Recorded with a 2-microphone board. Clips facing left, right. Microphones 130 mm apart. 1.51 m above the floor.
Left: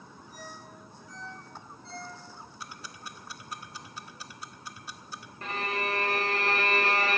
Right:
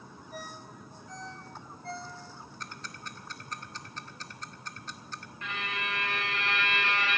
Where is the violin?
35° left (ahead or behind), 0.5 m.